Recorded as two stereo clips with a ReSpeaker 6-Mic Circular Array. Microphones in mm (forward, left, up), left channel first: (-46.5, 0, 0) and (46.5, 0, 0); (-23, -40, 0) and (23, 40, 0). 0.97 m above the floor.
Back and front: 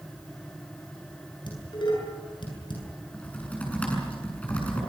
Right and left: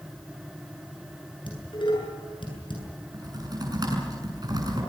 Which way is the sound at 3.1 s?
105° left.